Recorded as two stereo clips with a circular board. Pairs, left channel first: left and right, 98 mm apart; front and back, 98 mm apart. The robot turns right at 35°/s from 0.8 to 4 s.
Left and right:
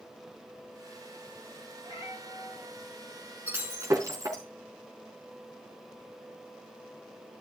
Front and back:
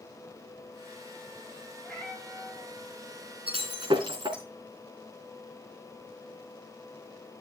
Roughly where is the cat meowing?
Left.